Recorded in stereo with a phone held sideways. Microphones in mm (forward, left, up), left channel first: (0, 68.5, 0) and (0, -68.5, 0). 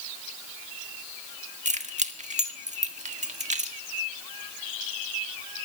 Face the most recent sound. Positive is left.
turn(degrees=-60)  # may be behind; listen again after turning